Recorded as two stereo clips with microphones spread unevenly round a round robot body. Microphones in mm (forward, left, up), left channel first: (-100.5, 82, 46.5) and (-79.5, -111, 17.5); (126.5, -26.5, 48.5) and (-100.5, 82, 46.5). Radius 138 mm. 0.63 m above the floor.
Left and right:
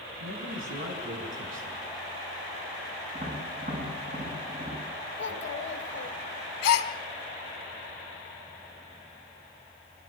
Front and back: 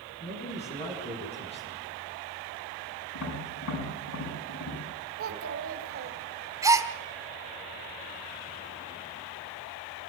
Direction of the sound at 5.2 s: 120° left.